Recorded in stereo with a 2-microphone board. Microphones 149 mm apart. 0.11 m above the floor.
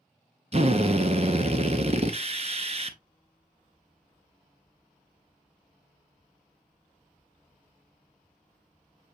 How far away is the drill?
About 0.6 m.